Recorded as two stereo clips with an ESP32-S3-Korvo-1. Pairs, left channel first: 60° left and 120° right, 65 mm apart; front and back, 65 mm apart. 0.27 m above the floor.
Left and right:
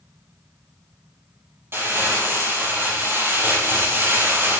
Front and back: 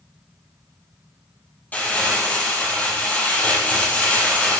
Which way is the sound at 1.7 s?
65° right.